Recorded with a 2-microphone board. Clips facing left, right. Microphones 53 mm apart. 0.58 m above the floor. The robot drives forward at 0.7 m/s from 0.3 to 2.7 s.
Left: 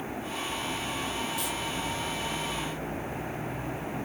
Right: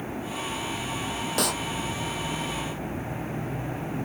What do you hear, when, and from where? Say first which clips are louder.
1.4 s a clap: right 6 dB; 80° right